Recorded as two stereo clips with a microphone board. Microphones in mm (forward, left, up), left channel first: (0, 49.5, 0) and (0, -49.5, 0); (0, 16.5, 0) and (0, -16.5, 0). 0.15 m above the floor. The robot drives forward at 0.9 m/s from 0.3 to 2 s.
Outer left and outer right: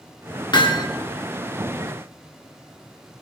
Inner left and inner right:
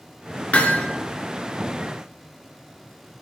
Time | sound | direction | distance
0.5 | hammering | 50° left (ahead or behind) | 1.6 m